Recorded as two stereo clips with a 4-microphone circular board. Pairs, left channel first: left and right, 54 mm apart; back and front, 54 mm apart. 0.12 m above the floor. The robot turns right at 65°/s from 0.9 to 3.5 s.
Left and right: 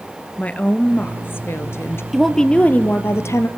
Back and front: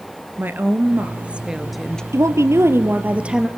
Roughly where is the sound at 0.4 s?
Ahead left.